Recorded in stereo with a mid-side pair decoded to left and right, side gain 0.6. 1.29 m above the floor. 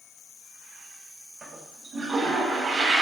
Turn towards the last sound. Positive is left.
turn(degrees=-30)